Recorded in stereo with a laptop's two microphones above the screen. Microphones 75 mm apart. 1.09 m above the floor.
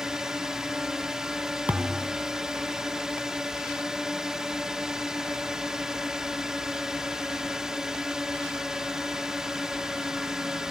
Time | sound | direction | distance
0.0 | a drone | 5° right (ahead or behind) | ?
1.7 | a thud | 20° right (ahead or behind) | ?